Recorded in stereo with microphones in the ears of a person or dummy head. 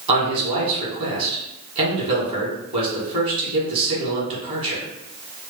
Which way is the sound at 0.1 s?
25° right (ahead or behind).